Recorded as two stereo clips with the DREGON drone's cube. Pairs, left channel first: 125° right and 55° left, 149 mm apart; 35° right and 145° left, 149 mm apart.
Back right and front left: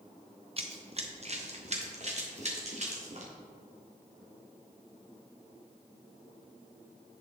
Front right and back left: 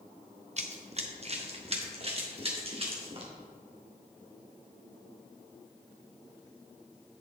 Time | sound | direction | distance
0.6 | running footsteps | 105° left | 0.9 m